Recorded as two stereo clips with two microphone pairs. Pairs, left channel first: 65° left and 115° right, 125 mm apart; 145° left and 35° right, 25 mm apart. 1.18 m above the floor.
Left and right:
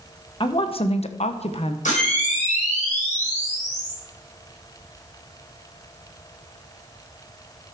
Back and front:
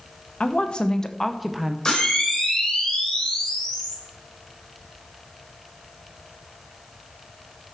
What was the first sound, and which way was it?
A woman speaking, 115° left.